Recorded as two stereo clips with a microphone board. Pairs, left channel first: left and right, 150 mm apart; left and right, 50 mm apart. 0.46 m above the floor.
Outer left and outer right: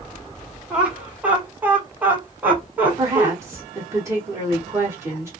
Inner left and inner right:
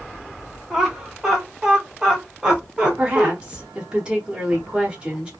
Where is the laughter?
5° right (ahead or behind), 1.5 m; by 3.3 s 10° right (ahead or behind), 1.6 m.